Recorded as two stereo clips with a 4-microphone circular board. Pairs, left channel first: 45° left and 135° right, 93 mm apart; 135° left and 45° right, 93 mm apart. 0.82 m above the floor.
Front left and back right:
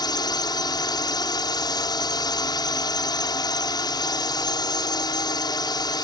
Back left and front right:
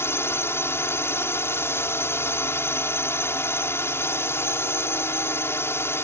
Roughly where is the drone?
Left.